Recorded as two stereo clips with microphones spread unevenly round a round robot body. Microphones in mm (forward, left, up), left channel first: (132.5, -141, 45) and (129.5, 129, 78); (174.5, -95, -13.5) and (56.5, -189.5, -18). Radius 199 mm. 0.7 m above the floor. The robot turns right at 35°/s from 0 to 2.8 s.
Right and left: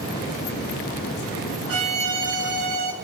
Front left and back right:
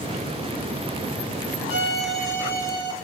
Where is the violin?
50° left, 0.8 m; by 2.9 s 90° left, 0.8 m.